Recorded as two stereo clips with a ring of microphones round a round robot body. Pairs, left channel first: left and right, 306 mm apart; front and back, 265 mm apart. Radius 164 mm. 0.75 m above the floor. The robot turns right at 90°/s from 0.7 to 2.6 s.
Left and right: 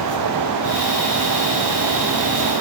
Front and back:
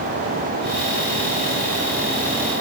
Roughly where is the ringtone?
No ringtone in this recording.